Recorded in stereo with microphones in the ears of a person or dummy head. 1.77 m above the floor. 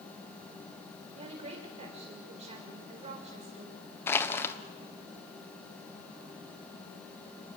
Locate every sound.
1.1 s a woman speaking: 35° right (ahead or behind), 6 m
4.1 s crushing: 15° left (ahead or behind), 1.3 m